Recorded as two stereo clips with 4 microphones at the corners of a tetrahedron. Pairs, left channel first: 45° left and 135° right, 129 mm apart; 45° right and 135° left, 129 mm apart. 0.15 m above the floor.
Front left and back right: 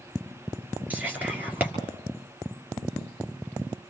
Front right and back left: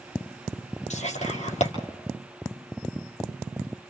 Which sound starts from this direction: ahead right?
Whispering, at 0.9 s.